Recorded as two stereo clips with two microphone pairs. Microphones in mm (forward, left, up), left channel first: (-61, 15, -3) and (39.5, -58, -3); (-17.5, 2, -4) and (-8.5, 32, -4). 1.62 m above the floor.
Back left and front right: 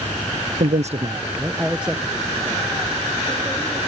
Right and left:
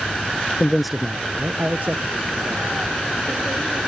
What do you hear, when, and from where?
0.6 s a man speaking: 35° right; by 3.9 s 65° left